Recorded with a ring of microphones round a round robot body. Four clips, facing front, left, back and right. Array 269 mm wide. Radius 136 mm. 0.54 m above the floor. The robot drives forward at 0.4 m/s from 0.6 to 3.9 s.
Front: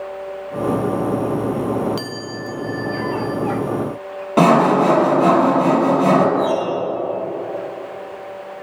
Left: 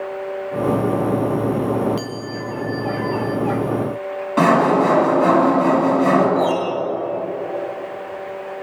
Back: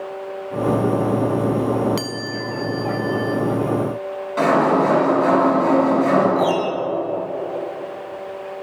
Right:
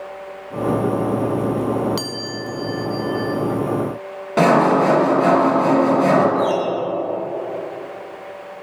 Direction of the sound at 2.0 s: 110° right.